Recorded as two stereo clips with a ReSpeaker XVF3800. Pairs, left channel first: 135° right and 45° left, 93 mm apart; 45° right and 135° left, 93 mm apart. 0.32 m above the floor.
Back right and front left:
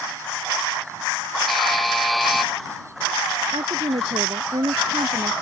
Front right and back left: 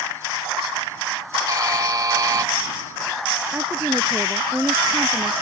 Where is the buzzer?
135° left.